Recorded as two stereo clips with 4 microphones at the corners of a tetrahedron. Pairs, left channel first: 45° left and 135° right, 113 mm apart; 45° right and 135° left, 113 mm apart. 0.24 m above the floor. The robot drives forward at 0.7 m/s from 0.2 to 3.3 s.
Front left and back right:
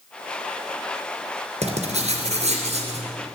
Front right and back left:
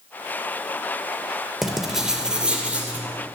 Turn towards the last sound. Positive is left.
turn(degrees=-150)